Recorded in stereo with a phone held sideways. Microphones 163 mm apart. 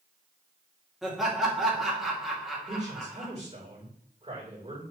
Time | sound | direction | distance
1.0 | laughter | centre (ahead or behind) | 2.5 m
2.7 | a man speaking | 35° right (ahead or behind) | 3.5 m